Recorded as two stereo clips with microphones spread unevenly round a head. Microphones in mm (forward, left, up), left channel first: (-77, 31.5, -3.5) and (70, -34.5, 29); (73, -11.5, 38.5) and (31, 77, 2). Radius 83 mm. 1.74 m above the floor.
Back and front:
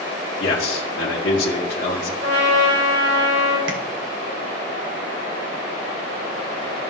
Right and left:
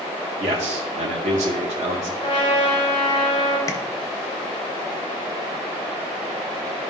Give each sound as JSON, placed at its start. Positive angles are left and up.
{"t": 0.4, "sound": "a man speaking", "azimuth_deg": 135, "distance_m": 1.7}
{"t": 2.2, "sound": "a trumpet", "azimuth_deg": -25, "distance_m": 3.0}
{"t": 3.7, "sound": "tapping", "azimuth_deg": -10, "distance_m": 1.5}